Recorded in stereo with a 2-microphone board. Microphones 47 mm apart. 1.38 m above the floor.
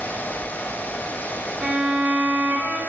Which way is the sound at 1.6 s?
20° right (ahead or behind).